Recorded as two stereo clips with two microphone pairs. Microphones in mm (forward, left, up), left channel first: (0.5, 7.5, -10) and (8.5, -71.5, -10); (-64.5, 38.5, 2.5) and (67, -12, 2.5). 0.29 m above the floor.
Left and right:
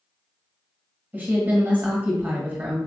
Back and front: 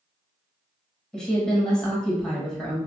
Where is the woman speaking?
125° right, 1.0 m.